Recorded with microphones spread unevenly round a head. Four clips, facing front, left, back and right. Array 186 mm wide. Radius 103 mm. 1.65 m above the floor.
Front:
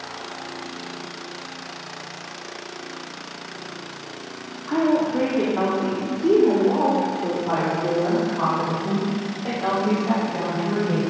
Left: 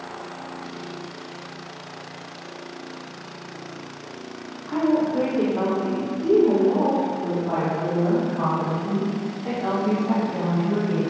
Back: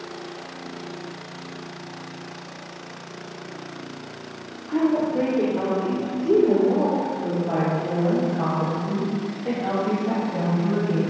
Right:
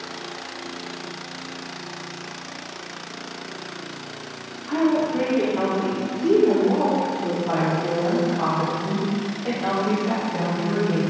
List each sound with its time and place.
4.7 s a woman speaking: 15° right, 3 m